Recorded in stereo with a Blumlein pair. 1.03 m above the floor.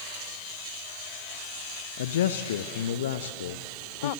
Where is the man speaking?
60° left, 0.8 m.